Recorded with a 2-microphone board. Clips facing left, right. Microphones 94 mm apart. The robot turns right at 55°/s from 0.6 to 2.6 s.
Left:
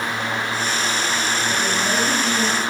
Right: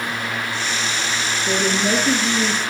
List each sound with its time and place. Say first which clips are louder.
1.5 s a woman speaking: right 6 dB; 80° right, 4.5 m; by 2.6 s 20° right, 4.5 m